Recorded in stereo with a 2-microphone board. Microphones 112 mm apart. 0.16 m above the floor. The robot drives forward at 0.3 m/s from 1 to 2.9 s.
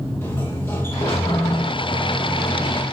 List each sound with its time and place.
0.2 s a sliding door: 20° left (ahead or behind), 5 m; by 2.8 s 25° left (ahead or behind), 4.5 m